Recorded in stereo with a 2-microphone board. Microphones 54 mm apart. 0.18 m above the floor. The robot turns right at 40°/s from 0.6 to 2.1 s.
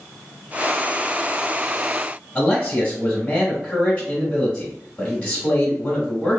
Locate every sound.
2.4 s a man speaking: 15° left (ahead or behind), 1.1 m